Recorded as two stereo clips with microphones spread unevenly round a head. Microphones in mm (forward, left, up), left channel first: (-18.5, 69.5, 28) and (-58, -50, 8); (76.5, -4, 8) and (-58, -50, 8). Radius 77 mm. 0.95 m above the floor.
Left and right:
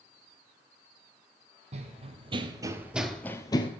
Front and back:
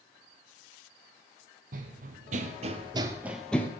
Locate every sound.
1.7 s running footsteps: 140° right, 2.0 m; by 3.7 s 90° left, 1.3 m